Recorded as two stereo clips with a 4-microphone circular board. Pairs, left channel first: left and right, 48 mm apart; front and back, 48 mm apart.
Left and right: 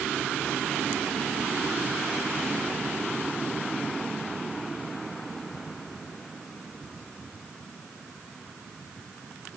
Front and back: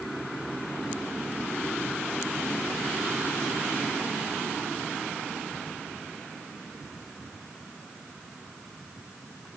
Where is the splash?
No splash in this recording.